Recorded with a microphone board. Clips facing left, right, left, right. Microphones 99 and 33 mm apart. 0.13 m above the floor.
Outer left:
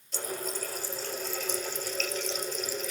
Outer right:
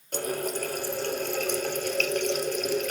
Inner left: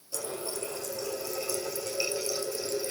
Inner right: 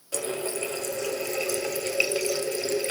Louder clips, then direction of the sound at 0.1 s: Outer right 6 dB, inner right 6 dB; 60° right (ahead or behind).